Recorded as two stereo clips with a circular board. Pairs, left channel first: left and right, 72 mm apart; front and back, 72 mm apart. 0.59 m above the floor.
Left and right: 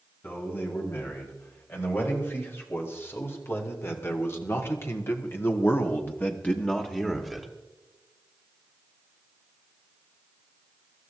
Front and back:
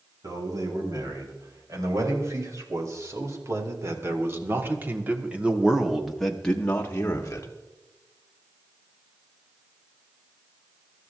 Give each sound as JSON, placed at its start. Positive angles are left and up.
{"t": 0.2, "sound": "a man speaking", "azimuth_deg": 150, "distance_m": 5.0}